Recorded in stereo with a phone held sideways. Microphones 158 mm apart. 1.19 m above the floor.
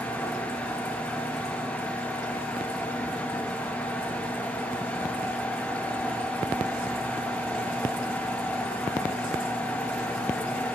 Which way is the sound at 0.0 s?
10° left (ahead or behind).